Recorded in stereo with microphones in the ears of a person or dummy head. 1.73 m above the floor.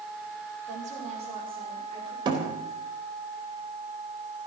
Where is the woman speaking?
40° right (ahead or behind), 5.5 m; by 2.1 s 25° right (ahead or behind), 5.5 m.